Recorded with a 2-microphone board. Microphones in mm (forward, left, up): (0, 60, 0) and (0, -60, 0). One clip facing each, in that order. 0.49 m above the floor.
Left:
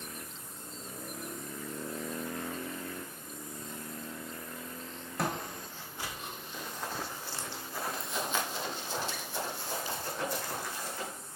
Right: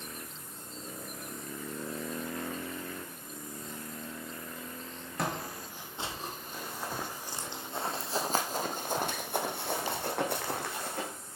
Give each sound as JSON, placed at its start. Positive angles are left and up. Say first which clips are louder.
{"t": 5.2, "sound": "footsteps", "louder": "even", "side_deg": 0, "distance_m": 1.1}
{"t": 6.5, "sound": "running footsteps", "louder": "even", "side_deg": -5, "distance_m": 1.5}